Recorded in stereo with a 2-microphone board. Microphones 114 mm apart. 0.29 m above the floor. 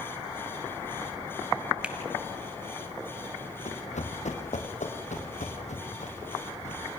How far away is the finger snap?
About 1.7 m.